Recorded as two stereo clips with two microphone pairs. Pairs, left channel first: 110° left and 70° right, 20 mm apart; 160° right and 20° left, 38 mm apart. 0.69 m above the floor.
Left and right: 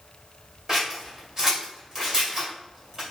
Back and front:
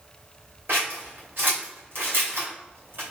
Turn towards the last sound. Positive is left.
turn(degrees=0)